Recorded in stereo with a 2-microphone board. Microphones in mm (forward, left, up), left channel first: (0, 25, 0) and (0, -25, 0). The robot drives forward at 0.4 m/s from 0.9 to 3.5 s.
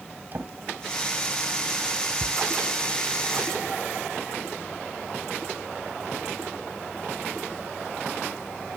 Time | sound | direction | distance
0.3 | a drawer | 45° right (ahead or behind) | 2.0 m